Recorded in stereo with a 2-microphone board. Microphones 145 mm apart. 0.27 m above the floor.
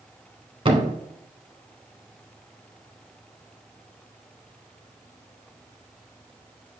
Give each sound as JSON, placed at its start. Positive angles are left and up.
{"t": 0.7, "sound": "a thud", "side_deg": -40, "distance_m": 1.1}